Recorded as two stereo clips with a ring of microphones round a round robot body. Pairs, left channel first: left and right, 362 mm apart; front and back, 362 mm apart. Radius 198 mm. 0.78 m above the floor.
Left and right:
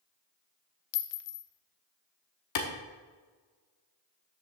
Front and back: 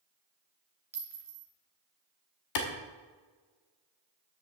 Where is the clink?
95° left, 0.9 m.